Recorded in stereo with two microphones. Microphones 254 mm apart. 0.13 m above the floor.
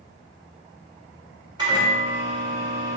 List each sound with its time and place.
1.6 s a microwave: 20° right (ahead or behind), 0.8 m